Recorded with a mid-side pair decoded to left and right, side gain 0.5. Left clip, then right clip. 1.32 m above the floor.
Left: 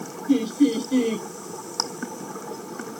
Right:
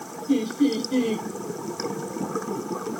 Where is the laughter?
5° left, 0.9 m.